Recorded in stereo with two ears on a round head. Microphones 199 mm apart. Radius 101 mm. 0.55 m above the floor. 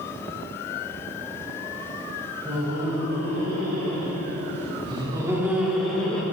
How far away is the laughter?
About 2.5 m.